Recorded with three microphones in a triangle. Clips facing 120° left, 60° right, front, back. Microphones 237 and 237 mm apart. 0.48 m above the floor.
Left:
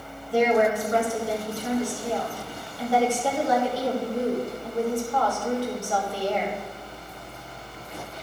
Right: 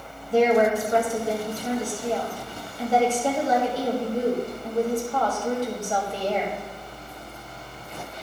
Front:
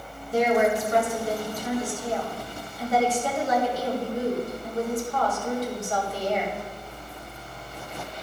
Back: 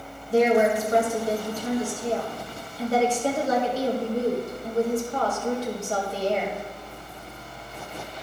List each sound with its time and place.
0.3 s a woman speaking: 125° right, 2.5 m